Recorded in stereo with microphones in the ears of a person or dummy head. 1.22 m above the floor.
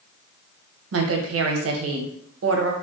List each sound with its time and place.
0.9 s a woman speaking: 75° right (ahead or behind), 0.5 m